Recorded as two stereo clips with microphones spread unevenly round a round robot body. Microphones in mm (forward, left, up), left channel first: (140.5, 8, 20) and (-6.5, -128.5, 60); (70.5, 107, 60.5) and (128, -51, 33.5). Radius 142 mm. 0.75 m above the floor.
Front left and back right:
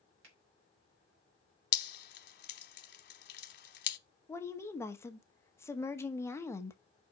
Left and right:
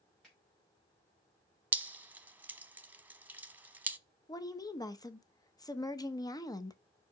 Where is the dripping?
15° left, 0.8 m.